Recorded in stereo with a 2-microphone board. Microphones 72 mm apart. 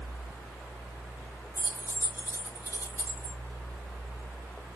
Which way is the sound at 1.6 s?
50° left (ahead or behind).